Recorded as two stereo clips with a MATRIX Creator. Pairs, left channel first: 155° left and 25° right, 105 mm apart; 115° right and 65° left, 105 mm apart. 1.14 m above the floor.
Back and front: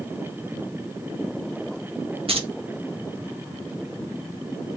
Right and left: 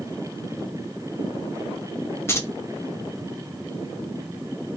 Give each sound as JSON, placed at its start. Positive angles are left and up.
{"t": 2.3, "sound": "keys jangling", "azimuth_deg": -45, "distance_m": 0.6}